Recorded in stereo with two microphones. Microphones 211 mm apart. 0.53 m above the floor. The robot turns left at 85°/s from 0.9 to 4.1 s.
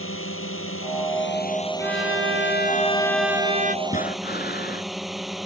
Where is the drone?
95° left; by 5.5 s straight behind.